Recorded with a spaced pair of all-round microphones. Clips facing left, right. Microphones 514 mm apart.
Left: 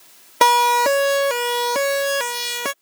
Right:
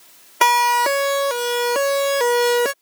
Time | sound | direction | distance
0.4 | a siren | 50° left (ahead or behind) | ?